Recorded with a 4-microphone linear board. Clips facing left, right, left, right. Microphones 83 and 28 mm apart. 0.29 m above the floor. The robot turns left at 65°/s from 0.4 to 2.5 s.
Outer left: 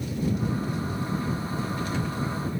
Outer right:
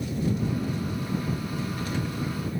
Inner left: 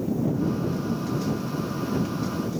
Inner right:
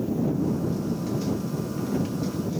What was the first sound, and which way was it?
Only background noise.